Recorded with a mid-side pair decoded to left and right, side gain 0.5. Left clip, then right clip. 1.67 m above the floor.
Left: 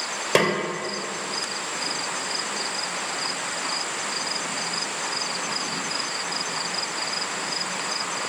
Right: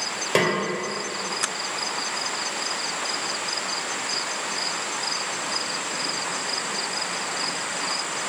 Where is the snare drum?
25° left, 0.7 m.